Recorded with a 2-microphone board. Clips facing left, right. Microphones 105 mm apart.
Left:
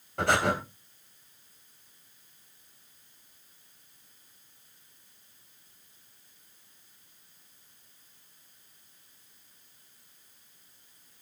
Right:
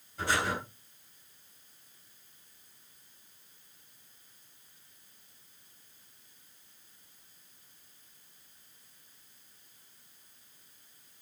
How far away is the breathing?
About 3.5 m.